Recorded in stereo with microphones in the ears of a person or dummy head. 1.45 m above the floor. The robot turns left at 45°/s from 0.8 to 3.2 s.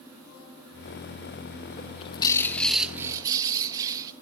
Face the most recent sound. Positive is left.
turn(degrees=-20)